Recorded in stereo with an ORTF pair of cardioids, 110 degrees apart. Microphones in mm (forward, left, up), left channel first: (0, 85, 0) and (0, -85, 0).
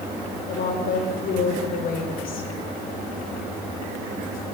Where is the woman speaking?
60° left, 7 m.